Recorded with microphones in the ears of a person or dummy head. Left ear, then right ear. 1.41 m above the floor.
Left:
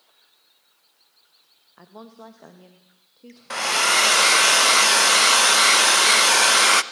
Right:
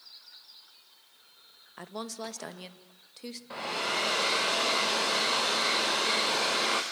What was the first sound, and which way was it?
A woman speaking, 75° right (ahead or behind).